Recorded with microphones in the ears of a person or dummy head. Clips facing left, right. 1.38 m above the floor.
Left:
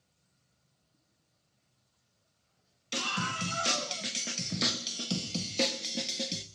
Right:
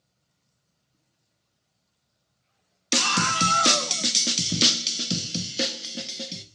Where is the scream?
80° right, 1.3 m; by 6.4 s 5° left (ahead or behind), 1.4 m.